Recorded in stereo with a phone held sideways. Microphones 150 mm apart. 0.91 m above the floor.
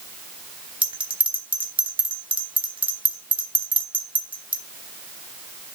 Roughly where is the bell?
Right.